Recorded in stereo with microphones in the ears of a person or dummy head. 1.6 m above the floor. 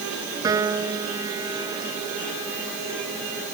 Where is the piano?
20° right (ahead or behind).